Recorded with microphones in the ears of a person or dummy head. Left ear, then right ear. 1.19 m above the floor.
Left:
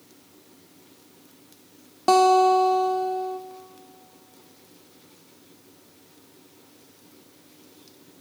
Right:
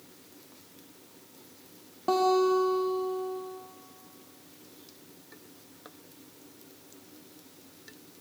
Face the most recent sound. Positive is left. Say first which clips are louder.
# left 8 dB
turn(degrees=55)  # may be behind; listen again after turning